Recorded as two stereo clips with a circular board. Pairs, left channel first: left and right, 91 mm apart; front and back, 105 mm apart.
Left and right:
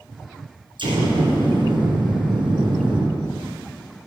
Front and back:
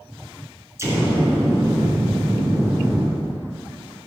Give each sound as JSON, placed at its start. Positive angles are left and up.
{"t": 0.8, "sound": "an explosion", "azimuth_deg": -115, "distance_m": 3.0}